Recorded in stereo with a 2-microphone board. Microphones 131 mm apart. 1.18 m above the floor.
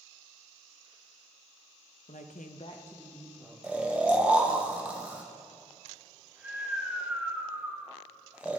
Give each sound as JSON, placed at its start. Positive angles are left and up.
{"t": 2.1, "sound": "a woman speaking", "side_deg": 65, "distance_m": 0.8}
{"t": 3.6, "sound": "snoring", "side_deg": -10, "distance_m": 0.8}